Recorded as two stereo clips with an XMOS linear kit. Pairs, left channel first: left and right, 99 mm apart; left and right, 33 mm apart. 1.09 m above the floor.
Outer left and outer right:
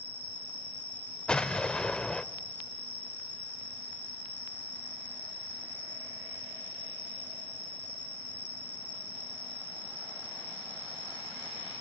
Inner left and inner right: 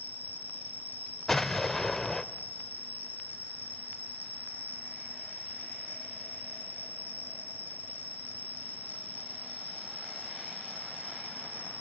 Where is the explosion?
10° left (ahead or behind), 0.8 m.